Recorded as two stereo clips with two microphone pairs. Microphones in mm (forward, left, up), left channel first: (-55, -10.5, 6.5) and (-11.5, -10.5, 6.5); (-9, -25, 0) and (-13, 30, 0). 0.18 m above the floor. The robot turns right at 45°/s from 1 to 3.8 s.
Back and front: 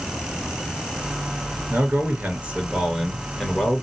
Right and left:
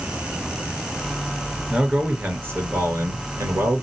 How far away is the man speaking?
About 2.5 m.